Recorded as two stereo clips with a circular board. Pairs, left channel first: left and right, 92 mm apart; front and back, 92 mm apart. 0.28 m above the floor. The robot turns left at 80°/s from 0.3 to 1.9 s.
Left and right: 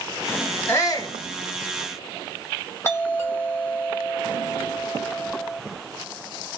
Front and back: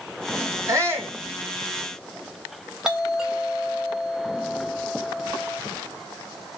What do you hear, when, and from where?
0.7 s a shout: 145° left, 1.9 m; by 1.2 s 105° left, 1.9 m
2.8 s a doorbell: 105° left, 1.9 m